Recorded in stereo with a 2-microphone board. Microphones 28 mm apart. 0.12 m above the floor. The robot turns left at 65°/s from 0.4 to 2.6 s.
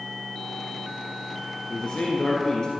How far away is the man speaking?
About 1.5 m.